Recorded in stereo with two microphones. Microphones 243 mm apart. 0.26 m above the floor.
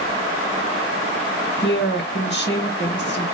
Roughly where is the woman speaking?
Left.